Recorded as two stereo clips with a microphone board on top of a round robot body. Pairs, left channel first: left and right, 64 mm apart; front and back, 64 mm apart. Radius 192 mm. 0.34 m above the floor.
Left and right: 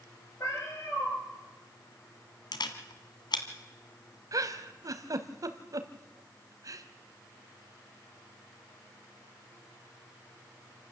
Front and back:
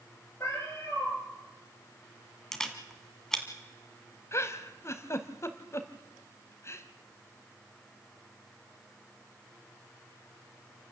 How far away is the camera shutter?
About 1.7 m.